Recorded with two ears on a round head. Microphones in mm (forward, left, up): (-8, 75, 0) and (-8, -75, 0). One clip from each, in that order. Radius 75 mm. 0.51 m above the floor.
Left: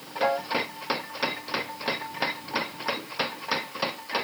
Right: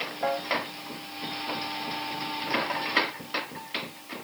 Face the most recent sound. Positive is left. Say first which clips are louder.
# left 4 dB
turn(degrees=80)